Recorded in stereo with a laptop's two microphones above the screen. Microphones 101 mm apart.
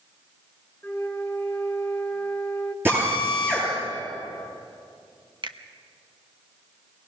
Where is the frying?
I don't hear frying.